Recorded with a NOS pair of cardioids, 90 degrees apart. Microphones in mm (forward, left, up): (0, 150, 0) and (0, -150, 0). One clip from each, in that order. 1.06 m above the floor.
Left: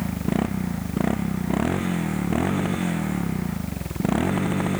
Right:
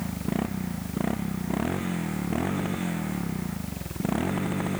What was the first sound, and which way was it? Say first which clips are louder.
A motorcycle: left 5 dB; 30° left.